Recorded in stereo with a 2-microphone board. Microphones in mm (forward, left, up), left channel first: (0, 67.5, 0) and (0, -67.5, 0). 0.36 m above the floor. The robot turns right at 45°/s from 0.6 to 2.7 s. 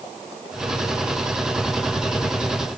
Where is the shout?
No shout in this recording.